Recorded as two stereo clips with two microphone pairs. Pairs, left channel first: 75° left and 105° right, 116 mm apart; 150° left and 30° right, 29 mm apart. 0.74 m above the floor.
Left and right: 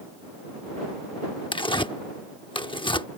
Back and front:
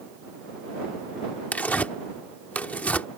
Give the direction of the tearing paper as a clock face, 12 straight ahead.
8 o'clock.